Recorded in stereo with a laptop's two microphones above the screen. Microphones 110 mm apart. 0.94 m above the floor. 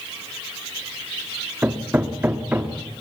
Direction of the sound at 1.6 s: 15° right (ahead or behind).